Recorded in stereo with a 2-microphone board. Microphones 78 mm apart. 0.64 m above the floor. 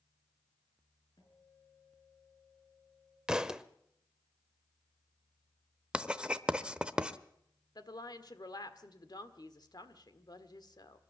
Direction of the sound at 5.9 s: 15° right (ahead or behind).